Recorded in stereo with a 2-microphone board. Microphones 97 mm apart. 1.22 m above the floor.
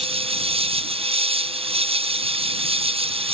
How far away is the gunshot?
I don't hear a gunshot.